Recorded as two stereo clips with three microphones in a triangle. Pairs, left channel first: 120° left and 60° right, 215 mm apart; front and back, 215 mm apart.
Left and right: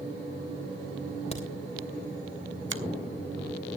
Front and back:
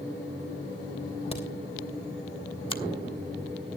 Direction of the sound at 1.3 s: 60° left.